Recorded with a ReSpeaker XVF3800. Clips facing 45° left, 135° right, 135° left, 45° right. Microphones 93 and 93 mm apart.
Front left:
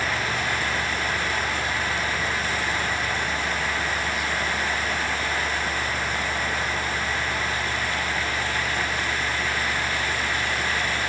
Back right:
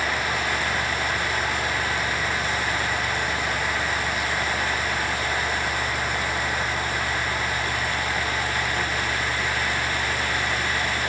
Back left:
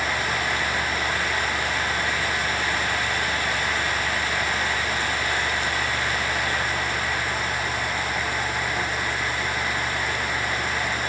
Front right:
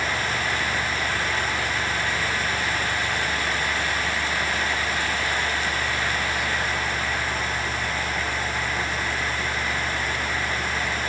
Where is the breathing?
No breathing in this recording.